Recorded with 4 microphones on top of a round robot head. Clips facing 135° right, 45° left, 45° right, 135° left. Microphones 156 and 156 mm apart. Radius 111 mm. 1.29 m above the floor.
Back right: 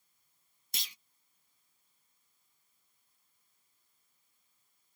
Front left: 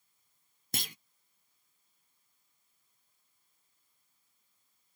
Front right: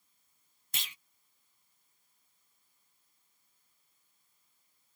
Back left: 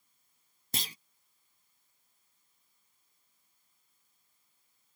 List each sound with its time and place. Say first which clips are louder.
0.7 s a clunk: front left 11 dB, back left 8 dB; 80° left